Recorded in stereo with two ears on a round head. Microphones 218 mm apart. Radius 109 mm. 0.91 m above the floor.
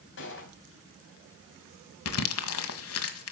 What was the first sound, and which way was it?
A gunshot, 50° left (ahead or behind).